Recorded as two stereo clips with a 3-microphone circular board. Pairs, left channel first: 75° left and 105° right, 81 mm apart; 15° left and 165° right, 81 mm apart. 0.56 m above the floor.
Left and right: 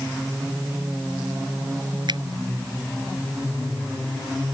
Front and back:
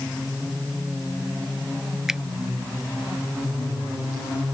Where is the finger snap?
80° right.